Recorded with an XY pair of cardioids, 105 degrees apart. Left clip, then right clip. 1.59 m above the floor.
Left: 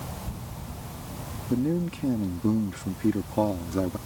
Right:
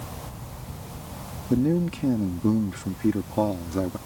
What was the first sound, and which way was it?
A man speaking, 25° right.